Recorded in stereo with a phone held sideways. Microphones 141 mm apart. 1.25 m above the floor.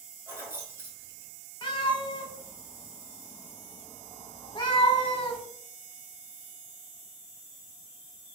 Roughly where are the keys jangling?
Centre.